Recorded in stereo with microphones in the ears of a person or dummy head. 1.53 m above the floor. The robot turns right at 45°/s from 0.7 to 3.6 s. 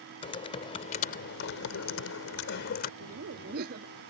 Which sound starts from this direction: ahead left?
Typing on a keyboard, at 0.2 s.